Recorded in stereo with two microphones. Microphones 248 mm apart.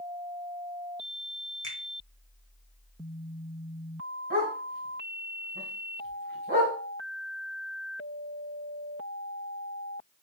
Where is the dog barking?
50° right (ahead or behind), 2.5 m.